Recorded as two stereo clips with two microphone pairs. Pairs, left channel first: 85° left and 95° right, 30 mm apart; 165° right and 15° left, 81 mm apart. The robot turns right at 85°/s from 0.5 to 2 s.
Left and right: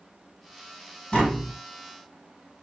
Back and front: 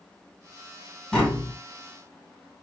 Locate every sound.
1.1 s tapping: 120° left, 1.8 m; by 1.5 s 155° left, 1.8 m